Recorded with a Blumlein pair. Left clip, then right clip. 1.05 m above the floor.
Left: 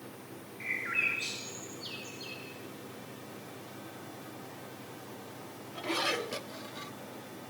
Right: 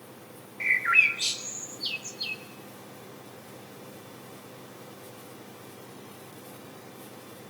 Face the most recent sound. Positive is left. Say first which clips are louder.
# right 10 dB
turn(degrees=-60)